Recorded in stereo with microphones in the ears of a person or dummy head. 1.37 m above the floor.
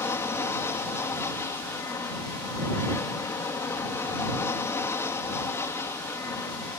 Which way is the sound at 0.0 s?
10° left (ahead or behind).